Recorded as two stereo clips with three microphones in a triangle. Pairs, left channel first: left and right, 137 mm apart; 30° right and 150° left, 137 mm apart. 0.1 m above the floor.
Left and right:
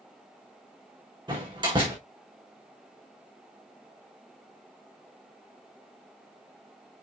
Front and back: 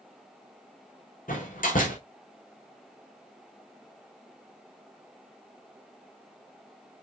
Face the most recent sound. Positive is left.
turn(degrees=-35)